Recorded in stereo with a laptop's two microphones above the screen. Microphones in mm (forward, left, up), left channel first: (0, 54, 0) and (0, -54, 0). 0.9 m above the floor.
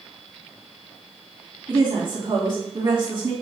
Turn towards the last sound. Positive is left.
turn(degrees=-35)  # may be behind; listen again after turning